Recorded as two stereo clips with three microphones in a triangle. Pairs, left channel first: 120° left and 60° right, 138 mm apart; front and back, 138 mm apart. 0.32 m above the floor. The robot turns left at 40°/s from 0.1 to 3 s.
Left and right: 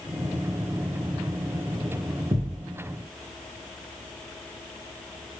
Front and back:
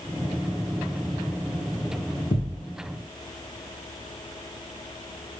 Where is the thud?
20° right, 0.8 m; by 2.7 s 35° right, 0.8 m.